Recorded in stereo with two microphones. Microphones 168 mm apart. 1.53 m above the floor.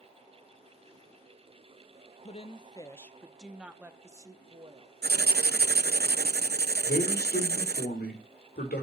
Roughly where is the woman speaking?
Left.